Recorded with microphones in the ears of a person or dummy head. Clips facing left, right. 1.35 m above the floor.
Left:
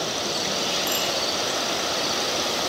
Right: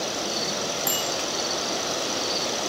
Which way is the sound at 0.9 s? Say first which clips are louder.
Left 2 dB; 15° right (ahead or behind).